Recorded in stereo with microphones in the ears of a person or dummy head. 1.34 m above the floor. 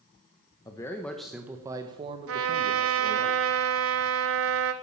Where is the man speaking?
20° left (ahead or behind), 0.9 m; by 3.3 s 55° right (ahead or behind), 1.4 m.